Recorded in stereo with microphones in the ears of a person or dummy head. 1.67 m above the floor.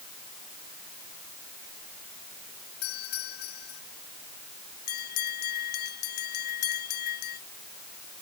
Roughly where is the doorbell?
Left.